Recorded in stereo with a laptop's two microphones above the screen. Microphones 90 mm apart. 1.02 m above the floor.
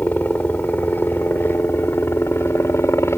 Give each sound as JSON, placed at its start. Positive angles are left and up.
{"t": 0.0, "sound": "a helicopter", "side_deg": 20}